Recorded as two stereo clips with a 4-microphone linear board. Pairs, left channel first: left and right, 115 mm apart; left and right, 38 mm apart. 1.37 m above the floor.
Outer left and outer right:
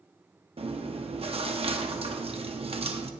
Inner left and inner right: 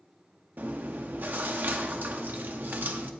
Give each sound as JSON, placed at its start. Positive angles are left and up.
{"t": 0.6, "sound": "chewing", "side_deg": -55, "distance_m": 0.8}